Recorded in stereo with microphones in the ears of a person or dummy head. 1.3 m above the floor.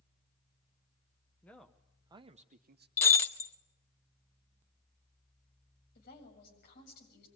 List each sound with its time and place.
1.4 s a man speaking: 10° left (ahead or behind), 0.9 m; by 2.9 s 50° right (ahead or behind), 1.1 m
3.0 s breaking glass: 15° left (ahead or behind), 0.9 m
6.0 s a woman speaking: 50° left (ahead or behind), 7.5 m